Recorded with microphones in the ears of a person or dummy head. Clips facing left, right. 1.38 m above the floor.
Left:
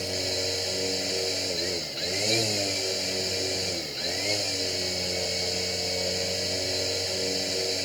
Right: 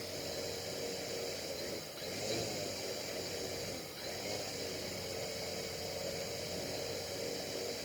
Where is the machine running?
85° left.